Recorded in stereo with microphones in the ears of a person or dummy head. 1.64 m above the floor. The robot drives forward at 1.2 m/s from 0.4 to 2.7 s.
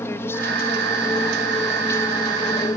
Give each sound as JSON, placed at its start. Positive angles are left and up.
{"t": 0.0, "sound": "an aircraft", "side_deg": 10}